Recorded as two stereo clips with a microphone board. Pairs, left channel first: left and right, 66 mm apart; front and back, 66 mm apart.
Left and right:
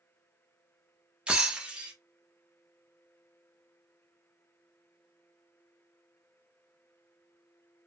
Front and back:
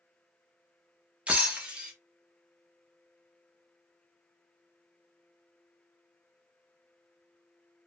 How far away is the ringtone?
No ringtone in this recording.